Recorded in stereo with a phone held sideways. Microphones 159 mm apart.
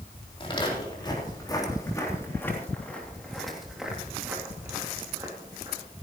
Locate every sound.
0.4 s footsteps: 30° left (ahead or behind), 4 m; by 5.8 s 30° right (ahead or behind), 3 m